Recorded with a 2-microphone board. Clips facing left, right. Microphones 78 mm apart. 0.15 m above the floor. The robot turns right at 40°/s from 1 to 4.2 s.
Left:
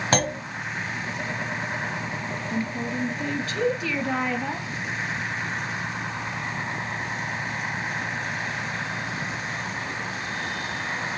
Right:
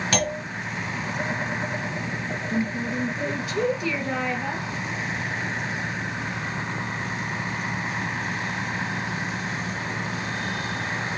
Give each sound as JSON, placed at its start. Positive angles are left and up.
{"t": 0.1, "sound": "a clunk", "side_deg": 30, "distance_m": 1.3}
{"t": 2.3, "sound": "a woman speaking", "azimuth_deg": -65, "distance_m": 2.5}